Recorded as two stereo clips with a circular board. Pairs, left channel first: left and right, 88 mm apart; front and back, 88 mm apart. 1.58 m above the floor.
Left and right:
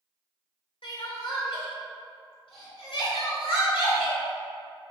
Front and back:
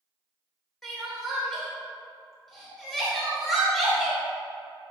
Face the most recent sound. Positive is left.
turn(degrees=85)